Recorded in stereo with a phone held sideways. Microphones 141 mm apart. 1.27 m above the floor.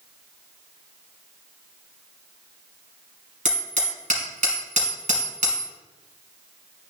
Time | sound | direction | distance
3.5 | hammering | 60° right (ahead or behind) | 3 m